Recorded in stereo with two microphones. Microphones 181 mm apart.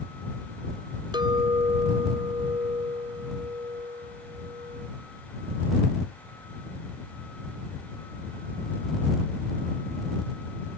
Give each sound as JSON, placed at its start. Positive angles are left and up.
{"t": 1.1, "sound": "a clink", "side_deg": -25}